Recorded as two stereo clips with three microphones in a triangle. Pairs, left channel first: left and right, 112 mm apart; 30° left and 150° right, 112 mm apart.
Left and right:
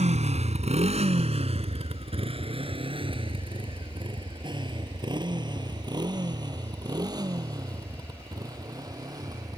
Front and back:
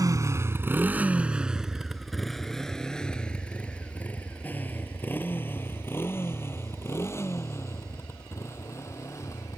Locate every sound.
0.0 s a motorcycle: 90° right; by 9.6 s 35° right